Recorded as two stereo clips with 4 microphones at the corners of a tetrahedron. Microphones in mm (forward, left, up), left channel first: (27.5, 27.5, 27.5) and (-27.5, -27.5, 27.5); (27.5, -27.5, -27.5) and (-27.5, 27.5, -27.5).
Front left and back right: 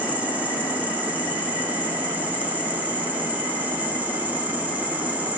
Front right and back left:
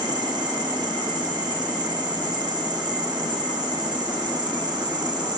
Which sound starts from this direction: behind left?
An insect, at 0.0 s.